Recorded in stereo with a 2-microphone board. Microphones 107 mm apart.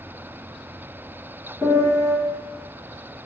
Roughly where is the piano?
Centre.